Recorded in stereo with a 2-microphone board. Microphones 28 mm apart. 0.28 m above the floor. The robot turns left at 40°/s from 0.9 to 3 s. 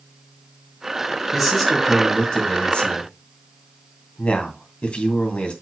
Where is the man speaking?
175° right, 2.5 m; by 5.5 s 115° left, 2.5 m.